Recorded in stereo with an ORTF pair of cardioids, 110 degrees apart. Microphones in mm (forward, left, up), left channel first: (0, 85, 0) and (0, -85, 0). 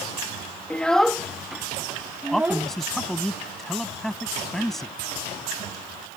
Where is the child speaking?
5° left; by 2.7 s 10° right.